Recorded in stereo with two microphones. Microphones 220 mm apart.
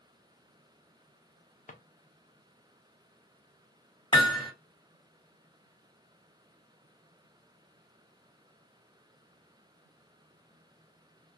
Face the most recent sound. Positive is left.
turn(degrees=20)  # may be behind; listen again after turning